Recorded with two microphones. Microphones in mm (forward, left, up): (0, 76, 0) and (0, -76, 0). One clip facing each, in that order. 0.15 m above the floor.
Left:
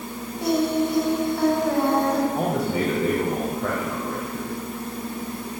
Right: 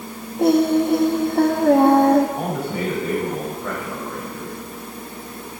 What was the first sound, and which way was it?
Singing, 55° right (ahead or behind).